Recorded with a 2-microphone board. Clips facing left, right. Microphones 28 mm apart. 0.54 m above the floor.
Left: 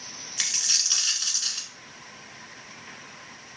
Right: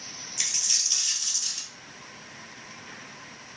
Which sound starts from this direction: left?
A dropped coin, at 0.4 s.